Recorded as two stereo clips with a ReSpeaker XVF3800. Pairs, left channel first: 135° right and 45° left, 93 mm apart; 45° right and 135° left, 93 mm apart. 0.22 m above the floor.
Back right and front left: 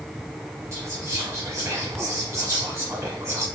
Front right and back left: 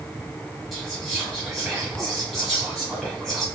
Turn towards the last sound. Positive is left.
turn(degrees=45)